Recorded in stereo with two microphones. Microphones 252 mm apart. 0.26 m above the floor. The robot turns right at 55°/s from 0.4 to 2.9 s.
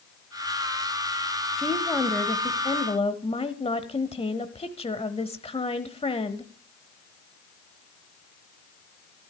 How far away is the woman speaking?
About 1.0 m.